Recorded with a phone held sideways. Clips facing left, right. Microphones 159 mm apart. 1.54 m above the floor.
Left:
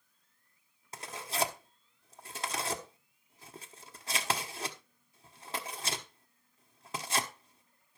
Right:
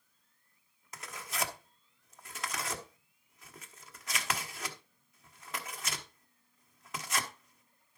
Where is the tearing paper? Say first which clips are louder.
Left 4 dB; 30° left (ahead or behind), 1.2 m.